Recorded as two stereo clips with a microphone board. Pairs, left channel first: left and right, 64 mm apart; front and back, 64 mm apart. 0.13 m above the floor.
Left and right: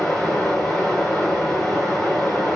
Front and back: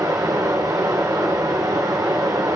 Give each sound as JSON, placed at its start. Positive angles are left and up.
{"t": 0.0, "sound": "running water", "azimuth_deg": 175, "distance_m": 4.0}